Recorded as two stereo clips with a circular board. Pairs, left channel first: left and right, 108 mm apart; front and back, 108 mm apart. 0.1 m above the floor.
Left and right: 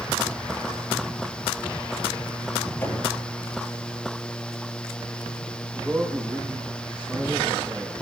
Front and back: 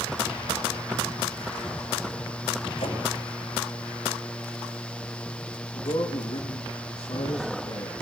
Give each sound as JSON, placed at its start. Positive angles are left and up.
{"t": 2.8, "sound": "knocking", "azimuth_deg": 20, "distance_m": 8.5}
{"t": 5.7, "sound": "a man speaking", "azimuth_deg": -10, "distance_m": 5.5}